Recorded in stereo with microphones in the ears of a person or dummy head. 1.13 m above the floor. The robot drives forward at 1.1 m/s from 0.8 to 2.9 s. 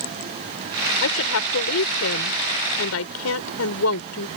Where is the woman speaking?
75° left (ahead or behind).